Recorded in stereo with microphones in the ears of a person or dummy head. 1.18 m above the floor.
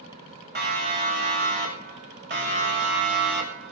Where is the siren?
45° right (ahead or behind), 7.5 m; by 3.7 s 55° right (ahead or behind), 5.5 m.